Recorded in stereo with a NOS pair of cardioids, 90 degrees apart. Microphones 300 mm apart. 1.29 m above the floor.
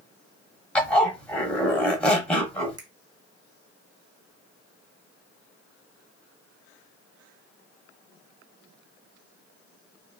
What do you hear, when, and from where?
0.8 s a zipper: 5° left, 0.8 m
2.8 s a finger snap: 15° right, 0.9 m